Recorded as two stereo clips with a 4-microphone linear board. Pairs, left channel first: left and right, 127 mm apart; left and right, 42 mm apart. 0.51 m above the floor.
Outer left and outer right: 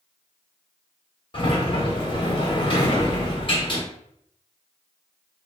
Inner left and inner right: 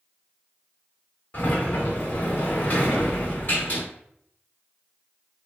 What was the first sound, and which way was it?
A sliding door, 45° left (ahead or behind).